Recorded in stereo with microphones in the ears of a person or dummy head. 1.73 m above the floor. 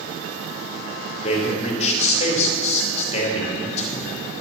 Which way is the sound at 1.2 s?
35° left (ahead or behind).